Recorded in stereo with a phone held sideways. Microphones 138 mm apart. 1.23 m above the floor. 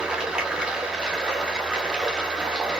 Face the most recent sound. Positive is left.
turn(degrees=-5)  # may be behind; listen again after turning